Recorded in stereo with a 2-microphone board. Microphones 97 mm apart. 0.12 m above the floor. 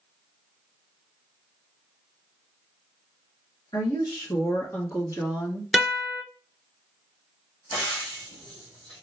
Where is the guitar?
5° right (ahead or behind), 0.6 m.